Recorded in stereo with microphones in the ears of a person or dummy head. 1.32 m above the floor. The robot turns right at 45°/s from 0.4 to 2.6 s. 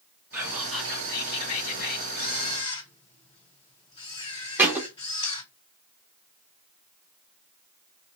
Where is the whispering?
15° right, 1.2 m; by 2.0 s 60° left, 1.2 m.